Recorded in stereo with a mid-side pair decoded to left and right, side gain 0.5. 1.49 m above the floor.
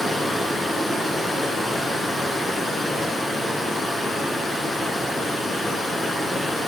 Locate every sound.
0.0 s running water: 25° left, 4.5 m